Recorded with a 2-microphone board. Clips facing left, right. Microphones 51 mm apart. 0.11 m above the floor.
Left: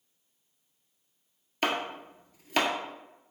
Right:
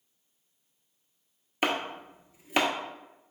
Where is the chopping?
15° right (ahead or behind), 0.7 m.